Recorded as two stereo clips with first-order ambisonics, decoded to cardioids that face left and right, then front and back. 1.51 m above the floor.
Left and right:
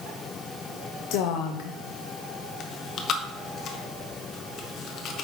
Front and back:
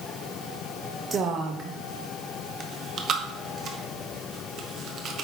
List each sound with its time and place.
1.1 s a woman speaking: 110° left, 0.5 m
2.6 s chewing: 130° left, 0.8 m